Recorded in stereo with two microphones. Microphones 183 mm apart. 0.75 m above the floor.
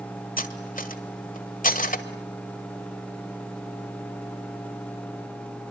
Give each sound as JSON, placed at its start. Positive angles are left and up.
{"t": 0.4, "sound": "cutlery clinking", "side_deg": 45, "distance_m": 1.7}